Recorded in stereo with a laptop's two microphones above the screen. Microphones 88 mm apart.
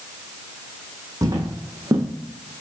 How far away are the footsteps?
About 1.9 m.